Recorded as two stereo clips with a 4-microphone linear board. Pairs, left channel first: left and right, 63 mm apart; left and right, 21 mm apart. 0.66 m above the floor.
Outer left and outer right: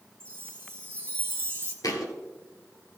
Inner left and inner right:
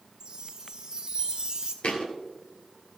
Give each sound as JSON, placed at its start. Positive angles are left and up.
{"t": 0.2, "sound": "a chime", "side_deg": -40, "distance_m": 1.7}
{"t": 1.8, "sound": "a thud", "side_deg": 75, "distance_m": 1.7}